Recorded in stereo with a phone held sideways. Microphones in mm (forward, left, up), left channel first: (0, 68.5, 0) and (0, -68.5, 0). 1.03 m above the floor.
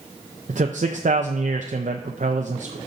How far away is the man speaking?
About 0.6 m.